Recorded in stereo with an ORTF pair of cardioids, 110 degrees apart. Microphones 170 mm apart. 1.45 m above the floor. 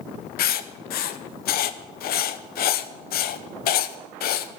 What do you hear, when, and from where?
0.4 s writing: 65° left, 1.0 m